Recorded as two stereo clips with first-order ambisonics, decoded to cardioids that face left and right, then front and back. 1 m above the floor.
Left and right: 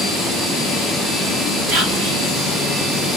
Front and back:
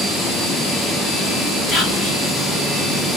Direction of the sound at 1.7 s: 85° right.